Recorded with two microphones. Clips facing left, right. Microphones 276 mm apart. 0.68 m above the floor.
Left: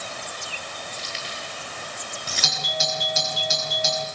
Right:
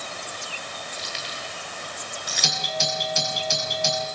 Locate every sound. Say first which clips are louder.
0.9 s keys jangling: even; 35° left (ahead or behind), 9 m
2.4 s a doorbell: right 1 dB; 5° left (ahead or behind), 7 m